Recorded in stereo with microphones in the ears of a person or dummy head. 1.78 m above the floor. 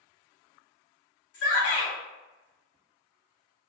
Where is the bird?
I don't hear a bird.